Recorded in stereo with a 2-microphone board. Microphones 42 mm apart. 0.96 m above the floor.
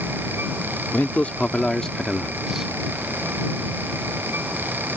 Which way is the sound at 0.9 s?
40° left (ahead or behind).